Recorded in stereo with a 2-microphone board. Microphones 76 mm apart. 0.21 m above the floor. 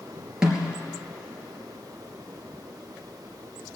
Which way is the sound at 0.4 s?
10° right (ahead or behind).